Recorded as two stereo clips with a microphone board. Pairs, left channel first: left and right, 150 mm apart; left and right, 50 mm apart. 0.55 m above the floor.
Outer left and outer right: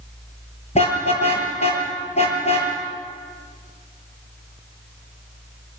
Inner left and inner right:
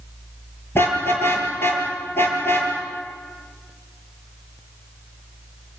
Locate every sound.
0.8 s a car horn: 45° left (ahead or behind), 7 m